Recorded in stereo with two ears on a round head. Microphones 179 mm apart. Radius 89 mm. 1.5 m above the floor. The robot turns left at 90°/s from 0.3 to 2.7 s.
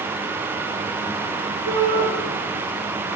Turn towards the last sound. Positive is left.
turn(degrees=165)